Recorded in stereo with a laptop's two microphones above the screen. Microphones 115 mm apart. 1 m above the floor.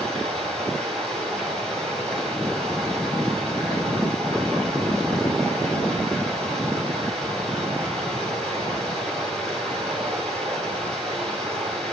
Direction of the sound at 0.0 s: 5° left (ahead or behind).